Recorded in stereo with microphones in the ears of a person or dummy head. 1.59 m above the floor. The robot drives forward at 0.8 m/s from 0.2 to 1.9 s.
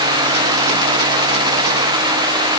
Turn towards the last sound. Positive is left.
No sound to turn to.